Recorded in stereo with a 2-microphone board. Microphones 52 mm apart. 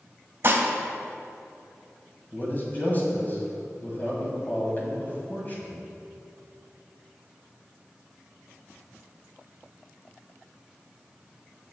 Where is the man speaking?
35° left (ahead or behind), 2 m.